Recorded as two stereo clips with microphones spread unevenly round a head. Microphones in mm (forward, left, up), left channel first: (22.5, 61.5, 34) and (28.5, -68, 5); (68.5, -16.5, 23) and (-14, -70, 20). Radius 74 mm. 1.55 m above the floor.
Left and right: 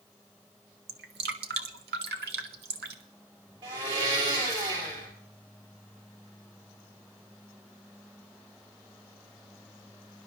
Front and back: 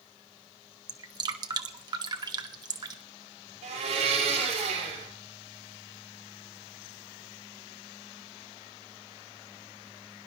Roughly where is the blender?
Behind right.